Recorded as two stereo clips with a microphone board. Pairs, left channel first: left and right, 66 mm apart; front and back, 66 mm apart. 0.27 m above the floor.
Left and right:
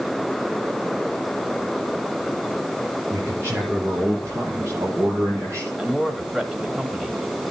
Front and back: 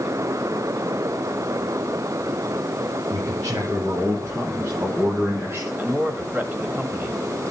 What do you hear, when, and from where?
3.1 s a man speaking: 145° right, 6 m; by 5.7 s 130° right, 7.5 m
5.8 s a man speaking: 155° right, 1.5 m